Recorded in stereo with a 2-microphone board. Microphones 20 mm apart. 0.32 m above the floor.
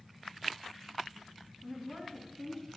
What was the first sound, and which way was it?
A woman speaking, 15° right (ahead or behind).